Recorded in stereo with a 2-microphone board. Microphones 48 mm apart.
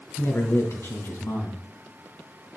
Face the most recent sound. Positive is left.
turn(degrees=65)  # may be behind; listen again after turning